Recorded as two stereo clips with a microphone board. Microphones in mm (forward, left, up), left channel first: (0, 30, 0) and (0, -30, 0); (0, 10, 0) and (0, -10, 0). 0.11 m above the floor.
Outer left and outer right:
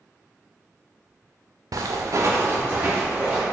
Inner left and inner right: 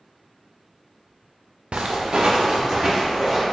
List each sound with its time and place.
1.7 s footsteps: 85° right, 0.6 m; by 3.4 s 20° right (ahead or behind), 1.9 m